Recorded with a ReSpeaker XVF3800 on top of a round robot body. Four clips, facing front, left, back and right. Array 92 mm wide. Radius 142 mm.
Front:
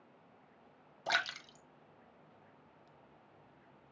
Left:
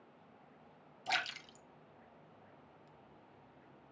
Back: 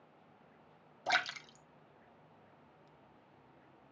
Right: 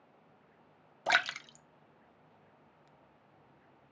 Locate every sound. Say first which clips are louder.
1.1 s a splash: right 8 dB, back 1 dB; 90° right, 1.0 m